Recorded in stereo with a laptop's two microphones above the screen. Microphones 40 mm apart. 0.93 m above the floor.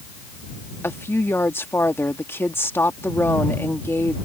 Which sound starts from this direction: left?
A woman speaking, at 0.8 s.